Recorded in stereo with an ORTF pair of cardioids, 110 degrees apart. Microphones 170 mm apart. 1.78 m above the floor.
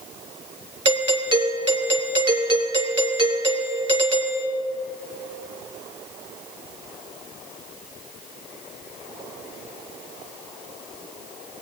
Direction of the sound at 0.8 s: 35° right.